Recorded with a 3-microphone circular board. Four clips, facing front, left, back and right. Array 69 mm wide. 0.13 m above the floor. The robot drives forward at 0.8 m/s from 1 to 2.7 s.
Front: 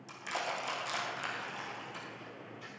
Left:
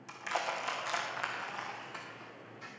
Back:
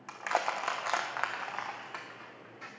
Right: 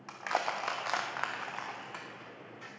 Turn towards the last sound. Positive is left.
turn(degrees=-165)